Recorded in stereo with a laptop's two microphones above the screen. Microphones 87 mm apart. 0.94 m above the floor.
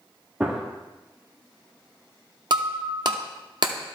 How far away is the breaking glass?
About 0.7 m.